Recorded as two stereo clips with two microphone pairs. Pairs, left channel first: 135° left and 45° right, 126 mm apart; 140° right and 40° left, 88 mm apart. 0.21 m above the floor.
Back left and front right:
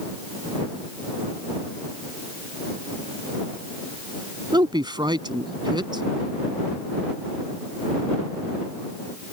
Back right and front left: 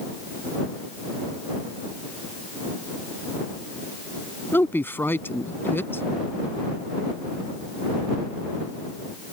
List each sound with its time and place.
4.5 s a woman speaking: 85° right